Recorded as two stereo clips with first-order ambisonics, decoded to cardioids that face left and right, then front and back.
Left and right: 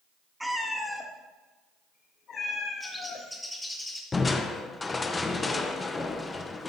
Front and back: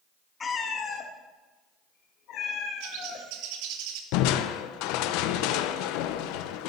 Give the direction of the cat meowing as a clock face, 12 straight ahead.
12 o'clock.